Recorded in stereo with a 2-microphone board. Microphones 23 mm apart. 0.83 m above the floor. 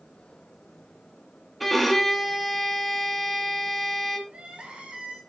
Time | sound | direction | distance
1.6 | a violin | centre (ahead or behind) | 1.9 m
4.3 | crying | 50° right (ahead or behind) | 3 m